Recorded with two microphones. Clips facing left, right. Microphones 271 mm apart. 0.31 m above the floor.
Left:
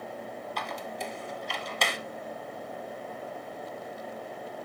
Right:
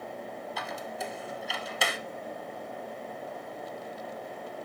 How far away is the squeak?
About 0.7 m.